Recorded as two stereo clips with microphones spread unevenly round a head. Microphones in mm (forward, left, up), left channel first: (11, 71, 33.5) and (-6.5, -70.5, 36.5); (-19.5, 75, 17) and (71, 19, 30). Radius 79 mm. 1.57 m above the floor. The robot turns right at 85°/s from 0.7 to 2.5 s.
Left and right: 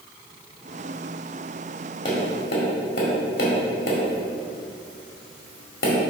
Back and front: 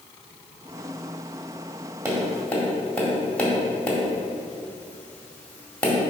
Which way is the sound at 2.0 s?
25° left.